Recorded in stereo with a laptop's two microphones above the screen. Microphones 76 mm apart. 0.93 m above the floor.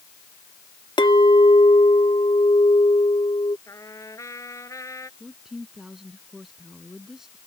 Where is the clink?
75° left (ahead or behind).